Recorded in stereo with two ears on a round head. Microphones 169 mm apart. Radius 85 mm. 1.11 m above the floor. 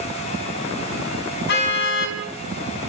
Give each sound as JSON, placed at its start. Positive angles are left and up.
{"t": 1.5, "sound": "a car horn", "side_deg": 60, "distance_m": 4.5}